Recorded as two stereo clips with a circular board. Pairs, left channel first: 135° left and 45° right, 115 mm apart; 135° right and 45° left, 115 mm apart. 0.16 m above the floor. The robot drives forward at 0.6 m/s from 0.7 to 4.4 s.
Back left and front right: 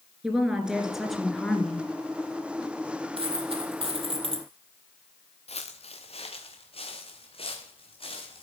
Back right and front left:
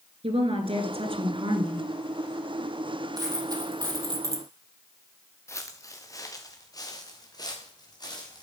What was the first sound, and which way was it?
A woman speaking, 40° left.